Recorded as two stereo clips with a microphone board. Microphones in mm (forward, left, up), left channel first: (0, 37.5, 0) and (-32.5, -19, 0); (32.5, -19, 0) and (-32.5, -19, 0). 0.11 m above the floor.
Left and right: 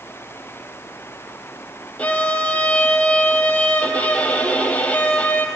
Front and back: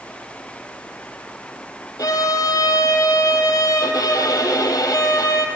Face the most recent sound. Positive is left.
turn(degrees=-5)